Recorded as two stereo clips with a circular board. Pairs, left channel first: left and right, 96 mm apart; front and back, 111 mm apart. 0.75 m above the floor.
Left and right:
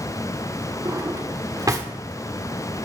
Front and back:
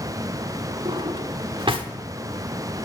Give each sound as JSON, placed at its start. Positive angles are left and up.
{"t": 0.8, "sound": "a drawer", "azimuth_deg": -140, "distance_m": 1.3}